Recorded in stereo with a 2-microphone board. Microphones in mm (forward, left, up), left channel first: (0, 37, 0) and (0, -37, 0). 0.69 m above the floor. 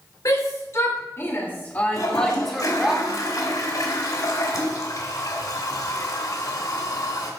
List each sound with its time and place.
0.2 s a shout: 50° left (ahead or behind), 3.5 m; by 2.9 s 5° right (ahead or behind), 2 m
1.9 s a toilet flushing: 55° left (ahead or behind), 2 m